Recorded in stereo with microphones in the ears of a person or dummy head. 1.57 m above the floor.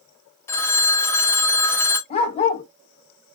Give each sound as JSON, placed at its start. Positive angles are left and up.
{"t": 0.5, "sound": "a phone ringing", "side_deg": 15, "distance_m": 0.6}
{"t": 2.1, "sound": "a dog barking", "side_deg": 30, "distance_m": 1.2}